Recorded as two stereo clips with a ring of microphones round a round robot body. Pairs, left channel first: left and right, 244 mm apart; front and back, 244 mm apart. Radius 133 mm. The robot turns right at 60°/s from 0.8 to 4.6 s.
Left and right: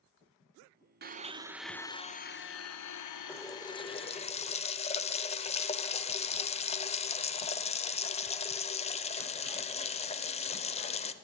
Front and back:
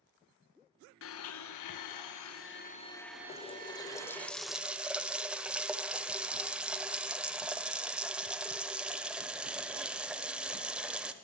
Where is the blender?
40° right, 0.9 m; by 4.3 s 160° left, 0.9 m.